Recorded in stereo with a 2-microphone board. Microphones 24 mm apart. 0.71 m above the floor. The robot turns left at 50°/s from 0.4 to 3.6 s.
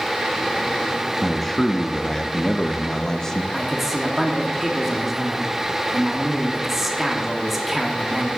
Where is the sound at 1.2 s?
Centre (ahead or behind), 0.6 m; by 3.4 s 20° left (ahead or behind), 0.6 m.